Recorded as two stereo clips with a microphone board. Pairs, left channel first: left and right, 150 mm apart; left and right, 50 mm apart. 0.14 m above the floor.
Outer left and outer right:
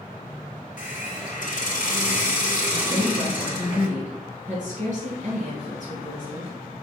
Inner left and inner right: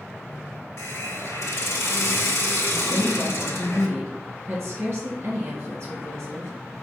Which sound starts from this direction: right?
A woman speaking, at 2.9 s.